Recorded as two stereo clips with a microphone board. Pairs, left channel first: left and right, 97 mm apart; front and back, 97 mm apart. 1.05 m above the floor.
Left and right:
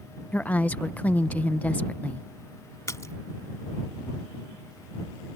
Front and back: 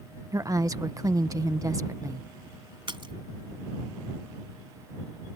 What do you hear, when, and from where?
0.3 s a woman speaking: 155° left
2.9 s a splash: 150° left